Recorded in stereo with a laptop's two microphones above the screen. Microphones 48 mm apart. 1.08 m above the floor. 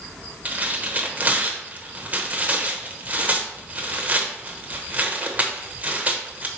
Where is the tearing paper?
35° right (ahead or behind), 0.9 m.